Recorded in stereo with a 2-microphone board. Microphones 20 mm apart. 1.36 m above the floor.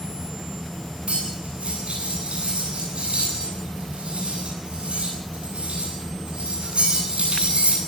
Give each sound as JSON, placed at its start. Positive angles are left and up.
{"t": 1.1, "sound": "cutlery clinking", "side_deg": -75, "distance_m": 10.0}